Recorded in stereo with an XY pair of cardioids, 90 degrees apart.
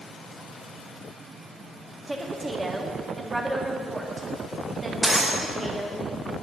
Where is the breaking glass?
20° right, 2.5 m.